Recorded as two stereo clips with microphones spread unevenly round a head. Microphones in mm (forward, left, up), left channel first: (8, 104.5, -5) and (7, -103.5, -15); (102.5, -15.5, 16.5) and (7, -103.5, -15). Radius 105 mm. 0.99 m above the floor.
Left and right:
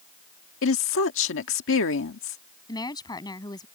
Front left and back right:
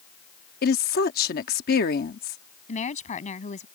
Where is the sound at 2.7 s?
20° left.